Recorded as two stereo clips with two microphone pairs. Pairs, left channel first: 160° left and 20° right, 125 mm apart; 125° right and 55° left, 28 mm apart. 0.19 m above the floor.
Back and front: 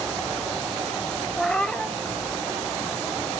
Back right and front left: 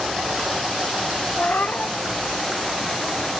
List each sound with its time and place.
1.4 s a cat meowing: 115° right, 0.5 m